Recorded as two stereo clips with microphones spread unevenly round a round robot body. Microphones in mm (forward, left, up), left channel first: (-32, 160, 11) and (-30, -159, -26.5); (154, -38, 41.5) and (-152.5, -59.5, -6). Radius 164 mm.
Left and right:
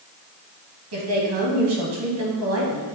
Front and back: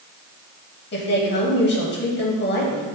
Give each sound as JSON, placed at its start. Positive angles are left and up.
{"t": 0.9, "sound": "a woman speaking", "azimuth_deg": -55, "distance_m": 2.0}